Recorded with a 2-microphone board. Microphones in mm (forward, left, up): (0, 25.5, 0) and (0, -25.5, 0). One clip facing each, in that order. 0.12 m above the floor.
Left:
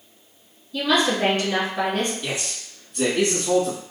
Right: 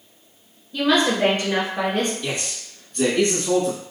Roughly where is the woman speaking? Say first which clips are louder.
Right 2 dB; right.